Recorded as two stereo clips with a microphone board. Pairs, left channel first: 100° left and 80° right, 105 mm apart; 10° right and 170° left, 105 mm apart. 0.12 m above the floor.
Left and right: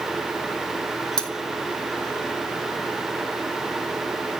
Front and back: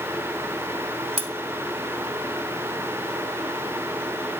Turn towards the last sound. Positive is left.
turn(degrees=-175)